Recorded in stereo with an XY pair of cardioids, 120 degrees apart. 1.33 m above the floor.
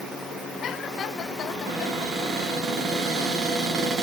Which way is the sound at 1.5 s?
55° right.